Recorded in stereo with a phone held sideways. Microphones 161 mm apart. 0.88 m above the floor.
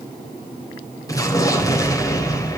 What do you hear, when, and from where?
1.1 s an explosion: 20° left (ahead or behind), 4 m